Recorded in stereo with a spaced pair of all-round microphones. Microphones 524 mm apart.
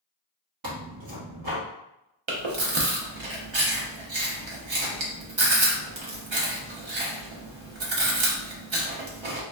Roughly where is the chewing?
Right.